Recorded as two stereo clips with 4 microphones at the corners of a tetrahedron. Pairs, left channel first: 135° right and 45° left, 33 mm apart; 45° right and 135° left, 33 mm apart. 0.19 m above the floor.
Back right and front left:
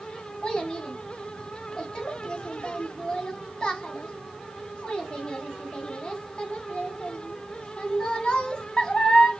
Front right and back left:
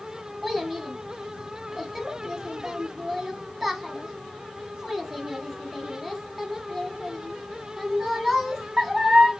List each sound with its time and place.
0.4 s a child speaking: 145° right, 0.9 m